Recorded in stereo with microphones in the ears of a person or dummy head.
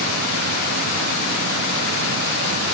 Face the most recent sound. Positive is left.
No sound to turn to.